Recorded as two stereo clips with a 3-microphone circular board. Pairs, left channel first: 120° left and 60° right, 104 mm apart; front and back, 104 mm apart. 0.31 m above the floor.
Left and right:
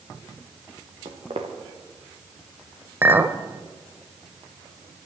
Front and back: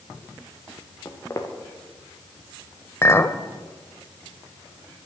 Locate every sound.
1.1 s footsteps: 60° right, 2.0 m
3.0 s a clink: 20° right, 0.6 m